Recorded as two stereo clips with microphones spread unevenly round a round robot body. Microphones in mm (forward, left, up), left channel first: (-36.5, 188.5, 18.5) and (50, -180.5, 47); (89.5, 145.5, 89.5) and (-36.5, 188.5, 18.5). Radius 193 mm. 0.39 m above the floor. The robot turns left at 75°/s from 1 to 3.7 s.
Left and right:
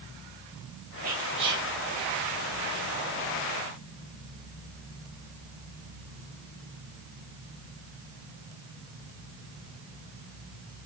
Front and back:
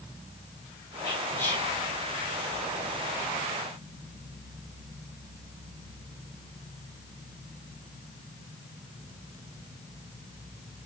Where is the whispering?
115° right, 1.4 m; by 1.7 s 160° right, 1.4 m.